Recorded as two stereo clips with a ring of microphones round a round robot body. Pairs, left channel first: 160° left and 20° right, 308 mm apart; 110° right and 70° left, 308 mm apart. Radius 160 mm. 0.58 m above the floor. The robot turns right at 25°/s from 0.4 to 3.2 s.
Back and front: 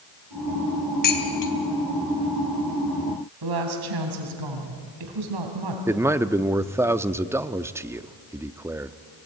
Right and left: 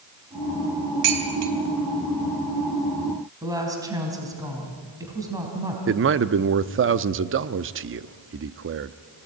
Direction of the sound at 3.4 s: 10° right.